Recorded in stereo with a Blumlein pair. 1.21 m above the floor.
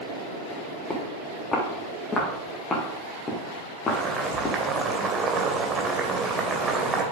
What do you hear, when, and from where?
0.9 s footsteps: 10° left, 6 m; by 4.6 s 25° left, 3.5 m
3.9 s boiling: 20° right, 2.5 m